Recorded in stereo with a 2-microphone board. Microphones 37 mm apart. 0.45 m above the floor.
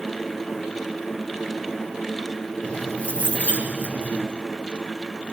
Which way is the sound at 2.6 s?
35° left (ahead or behind).